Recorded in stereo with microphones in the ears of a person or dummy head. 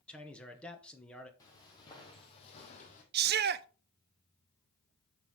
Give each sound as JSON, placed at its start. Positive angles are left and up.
{"t": 0.1, "sound": "a man speaking", "side_deg": 5, "distance_m": 1.2}
{"t": 1.4, "sound": "footsteps", "side_deg": 20, "distance_m": 3.5}
{"t": 3.1, "sound": "a shout", "side_deg": -50, "distance_m": 0.6}